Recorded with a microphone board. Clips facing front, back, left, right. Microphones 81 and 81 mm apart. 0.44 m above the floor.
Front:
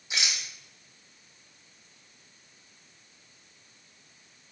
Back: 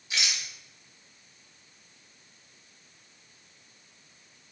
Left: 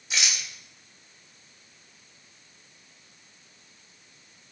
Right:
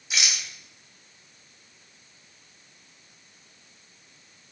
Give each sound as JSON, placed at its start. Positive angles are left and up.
{"t": 0.1, "sound": "a rattle", "azimuth_deg": -5, "distance_m": 1.2}